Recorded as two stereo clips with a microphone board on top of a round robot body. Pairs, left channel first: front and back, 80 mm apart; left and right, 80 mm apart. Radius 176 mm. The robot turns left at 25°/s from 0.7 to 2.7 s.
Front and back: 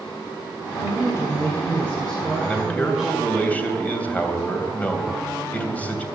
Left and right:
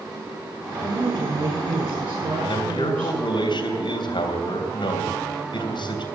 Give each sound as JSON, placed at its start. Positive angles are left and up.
{"t": 0.8, "sound": "a woman speaking", "azimuth_deg": -40, "distance_m": 6.5}
{"t": 2.4, "sound": "a man speaking", "azimuth_deg": 80, "distance_m": 3.0}